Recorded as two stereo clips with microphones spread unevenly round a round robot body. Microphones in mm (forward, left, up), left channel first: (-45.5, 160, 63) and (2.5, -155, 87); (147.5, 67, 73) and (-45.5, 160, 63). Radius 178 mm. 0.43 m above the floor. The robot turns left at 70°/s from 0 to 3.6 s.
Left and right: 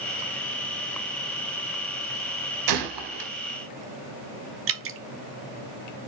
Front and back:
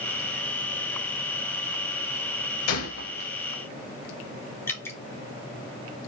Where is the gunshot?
45° right, 0.7 m; by 3.3 s 90° right, 0.7 m.